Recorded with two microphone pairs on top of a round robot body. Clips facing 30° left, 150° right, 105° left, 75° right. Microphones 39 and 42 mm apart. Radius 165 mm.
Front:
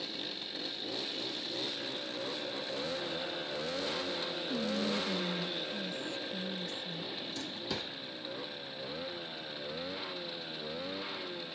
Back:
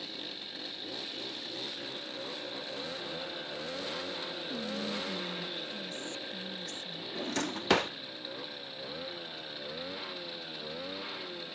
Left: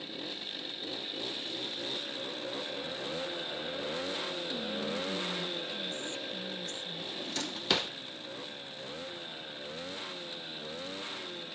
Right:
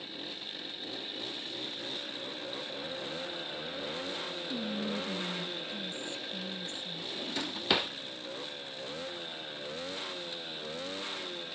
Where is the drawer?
150° right, 0.6 m.